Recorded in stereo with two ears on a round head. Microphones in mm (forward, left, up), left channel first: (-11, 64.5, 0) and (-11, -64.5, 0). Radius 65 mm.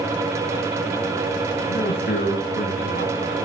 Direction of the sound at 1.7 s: 65° left (ahead or behind).